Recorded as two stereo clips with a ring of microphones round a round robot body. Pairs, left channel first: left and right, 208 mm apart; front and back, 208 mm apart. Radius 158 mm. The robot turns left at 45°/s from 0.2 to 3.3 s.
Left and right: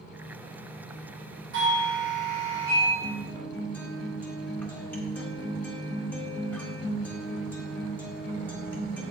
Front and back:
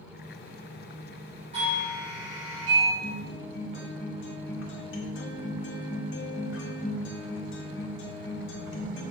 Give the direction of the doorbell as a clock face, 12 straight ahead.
4 o'clock.